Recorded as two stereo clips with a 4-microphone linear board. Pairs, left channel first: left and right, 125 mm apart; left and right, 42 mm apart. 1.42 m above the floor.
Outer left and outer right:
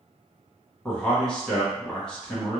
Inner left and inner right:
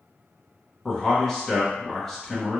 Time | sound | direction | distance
0.8 | a man speaking | 10° left (ahead or behind) | 1.1 m